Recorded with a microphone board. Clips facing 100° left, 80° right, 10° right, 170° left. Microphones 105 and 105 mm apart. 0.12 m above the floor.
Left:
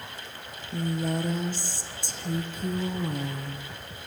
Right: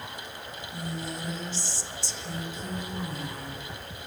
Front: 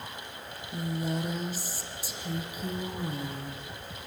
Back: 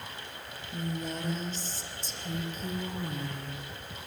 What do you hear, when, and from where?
0.7 s a woman speaking: 70° left, 5 m